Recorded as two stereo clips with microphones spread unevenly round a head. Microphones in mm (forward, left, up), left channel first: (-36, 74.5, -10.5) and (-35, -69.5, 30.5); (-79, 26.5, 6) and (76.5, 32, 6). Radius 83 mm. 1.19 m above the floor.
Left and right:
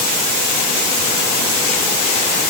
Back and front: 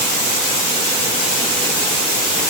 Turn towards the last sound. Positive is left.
No sound to turn to.